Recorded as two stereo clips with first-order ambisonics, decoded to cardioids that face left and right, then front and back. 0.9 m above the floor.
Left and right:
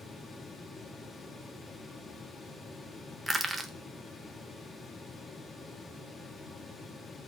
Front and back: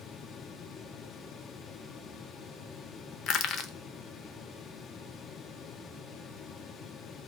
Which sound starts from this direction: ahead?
Crushing, at 3.3 s.